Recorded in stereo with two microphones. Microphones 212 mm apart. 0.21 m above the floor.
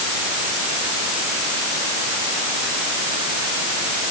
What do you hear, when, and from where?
Only background noise.